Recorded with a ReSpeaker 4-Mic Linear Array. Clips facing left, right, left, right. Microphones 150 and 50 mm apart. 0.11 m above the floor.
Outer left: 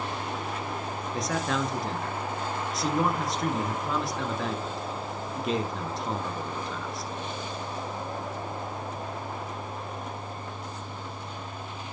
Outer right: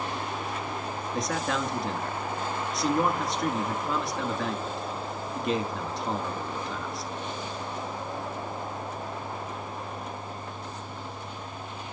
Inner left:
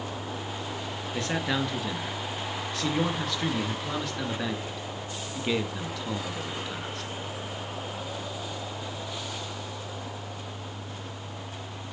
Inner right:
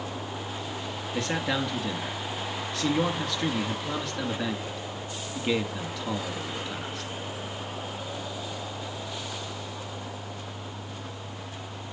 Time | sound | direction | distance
1.1 | a man speaking | centre (ahead or behind) | 1.6 m